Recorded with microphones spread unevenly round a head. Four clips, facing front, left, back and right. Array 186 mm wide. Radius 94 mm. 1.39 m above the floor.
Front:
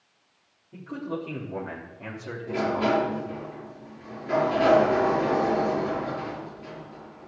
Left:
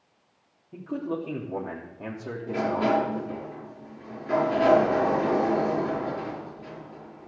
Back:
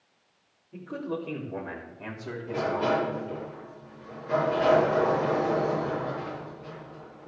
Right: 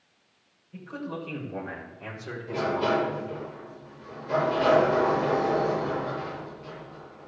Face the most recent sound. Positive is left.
turn(degrees=55)